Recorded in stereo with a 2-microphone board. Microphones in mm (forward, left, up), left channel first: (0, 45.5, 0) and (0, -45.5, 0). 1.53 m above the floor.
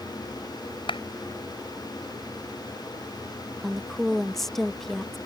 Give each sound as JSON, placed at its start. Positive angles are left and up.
{"t": 0.9, "sound": "a clap", "side_deg": 65}
{"t": 3.6, "sound": "a woman speaking", "side_deg": 5}